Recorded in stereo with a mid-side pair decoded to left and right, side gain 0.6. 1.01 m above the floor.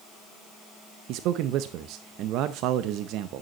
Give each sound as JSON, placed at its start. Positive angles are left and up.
{"t": 1.1, "sound": "a man speaking", "azimuth_deg": -70, "distance_m": 0.6}